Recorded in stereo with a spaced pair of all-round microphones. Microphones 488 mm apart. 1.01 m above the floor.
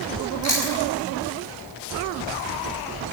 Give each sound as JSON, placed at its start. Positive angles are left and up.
{"t": 0.4, "sound": "chewing", "side_deg": 65, "distance_m": 5.0}